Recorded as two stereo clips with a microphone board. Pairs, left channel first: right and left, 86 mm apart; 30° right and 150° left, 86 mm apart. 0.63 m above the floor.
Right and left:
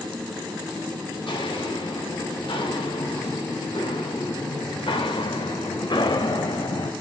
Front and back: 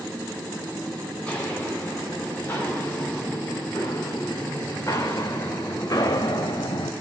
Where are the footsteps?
105° right, 5.5 m; by 6.9 s 55° right, 1.8 m.